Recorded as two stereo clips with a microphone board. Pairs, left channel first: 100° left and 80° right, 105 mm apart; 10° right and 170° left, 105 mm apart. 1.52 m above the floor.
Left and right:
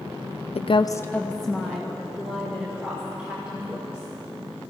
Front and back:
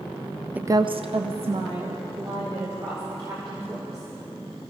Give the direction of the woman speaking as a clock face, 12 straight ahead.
9 o'clock.